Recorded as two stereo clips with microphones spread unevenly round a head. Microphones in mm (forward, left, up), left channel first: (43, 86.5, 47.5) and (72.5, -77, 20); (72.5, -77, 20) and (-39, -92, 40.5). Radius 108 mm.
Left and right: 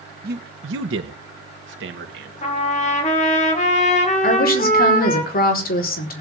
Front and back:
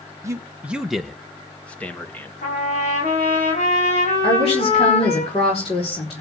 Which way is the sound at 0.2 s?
130° right.